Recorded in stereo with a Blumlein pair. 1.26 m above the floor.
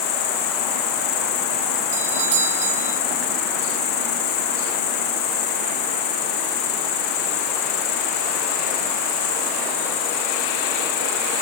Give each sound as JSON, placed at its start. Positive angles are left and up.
{"t": 0.0, "sound": "an insect", "azimuth_deg": 40, "distance_m": 1.0}
{"t": 1.9, "sound": "a doorbell", "azimuth_deg": -55, "distance_m": 1.2}